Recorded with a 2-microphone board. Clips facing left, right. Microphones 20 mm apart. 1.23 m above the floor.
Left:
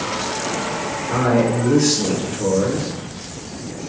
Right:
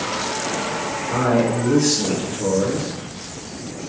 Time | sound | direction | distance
1.1 | a man speaking | 30° left (ahead or behind) | 0.9 m